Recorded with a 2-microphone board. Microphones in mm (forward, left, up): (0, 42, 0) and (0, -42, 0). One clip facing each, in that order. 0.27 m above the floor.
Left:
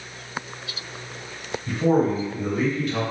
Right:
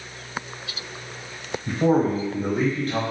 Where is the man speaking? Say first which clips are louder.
Even; 35° right (ahead or behind), 1.3 m; by 3.0 s 40° right (ahead or behind), 1.6 m.